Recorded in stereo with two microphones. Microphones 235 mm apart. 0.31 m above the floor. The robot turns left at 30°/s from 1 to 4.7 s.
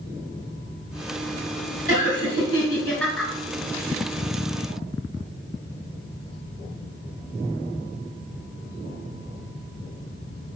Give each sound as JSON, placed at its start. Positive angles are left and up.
{"t": 1.9, "sound": "laughter", "azimuth_deg": 40, "distance_m": 4.5}